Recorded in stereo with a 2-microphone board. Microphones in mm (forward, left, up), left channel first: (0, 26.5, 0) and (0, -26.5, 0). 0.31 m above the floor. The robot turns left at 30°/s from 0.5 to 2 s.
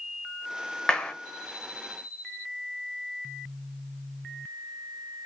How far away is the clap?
About 0.7 m.